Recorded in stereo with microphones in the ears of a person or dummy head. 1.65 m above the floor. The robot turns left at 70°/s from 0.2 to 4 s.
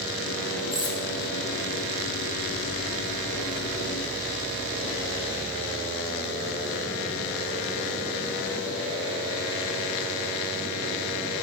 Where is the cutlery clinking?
30° left (ahead or behind), 1.4 m; by 1.0 s 15° left (ahead or behind), 1.4 m.